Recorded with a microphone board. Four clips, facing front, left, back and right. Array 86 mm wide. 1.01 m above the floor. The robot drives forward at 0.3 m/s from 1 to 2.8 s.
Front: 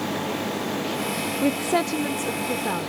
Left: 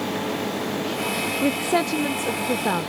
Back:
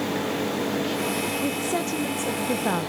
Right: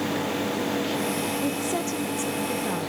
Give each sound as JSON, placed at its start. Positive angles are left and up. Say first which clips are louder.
{"t": 1.4, "sound": "a woman speaking", "louder": "left 5 dB, front 4 dB", "azimuth_deg": 50, "distance_m": 0.6}